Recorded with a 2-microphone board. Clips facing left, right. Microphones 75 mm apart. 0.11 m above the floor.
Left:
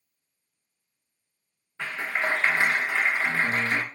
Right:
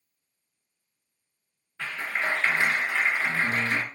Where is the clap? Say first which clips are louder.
Left 1 dB; 25° left (ahead or behind), 1.0 m.